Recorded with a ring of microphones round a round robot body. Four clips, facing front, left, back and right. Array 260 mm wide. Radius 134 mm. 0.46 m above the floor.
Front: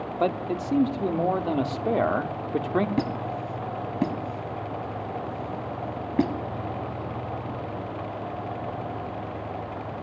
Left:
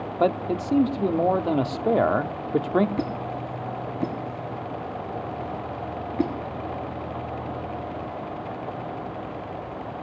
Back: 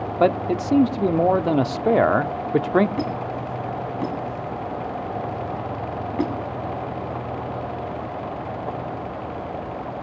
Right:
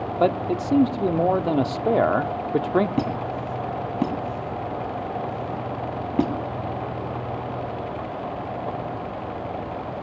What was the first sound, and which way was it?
A man speaking, 175° right.